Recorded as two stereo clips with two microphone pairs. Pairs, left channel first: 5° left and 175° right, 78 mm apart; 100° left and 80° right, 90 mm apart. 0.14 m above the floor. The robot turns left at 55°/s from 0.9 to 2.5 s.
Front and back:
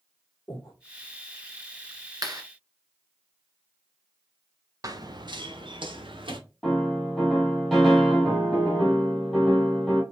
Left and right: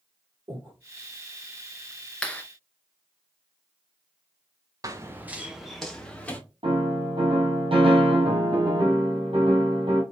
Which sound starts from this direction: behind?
A clap, at 2.2 s.